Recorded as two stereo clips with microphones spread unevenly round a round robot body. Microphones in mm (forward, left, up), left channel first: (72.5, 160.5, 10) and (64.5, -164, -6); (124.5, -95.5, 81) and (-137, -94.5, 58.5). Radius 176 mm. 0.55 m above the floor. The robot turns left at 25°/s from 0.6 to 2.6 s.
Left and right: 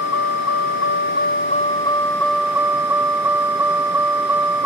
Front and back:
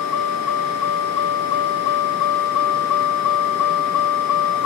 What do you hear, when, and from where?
0.0 s a vehicle: 45° left; by 4.7 s 5° right